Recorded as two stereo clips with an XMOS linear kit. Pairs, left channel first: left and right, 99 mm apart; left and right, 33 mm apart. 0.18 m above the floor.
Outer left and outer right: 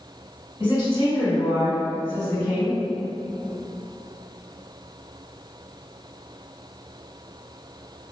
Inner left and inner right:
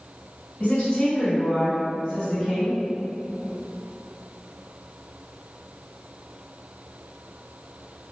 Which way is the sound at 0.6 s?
40° left (ahead or behind).